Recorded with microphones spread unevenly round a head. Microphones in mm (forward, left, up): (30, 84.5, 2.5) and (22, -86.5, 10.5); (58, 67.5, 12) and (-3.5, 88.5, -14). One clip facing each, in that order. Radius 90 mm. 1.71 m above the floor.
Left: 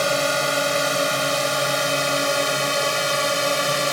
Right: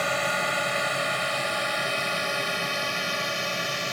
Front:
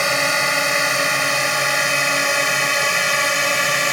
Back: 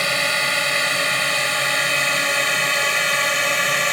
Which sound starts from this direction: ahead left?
A drone, at 0.0 s.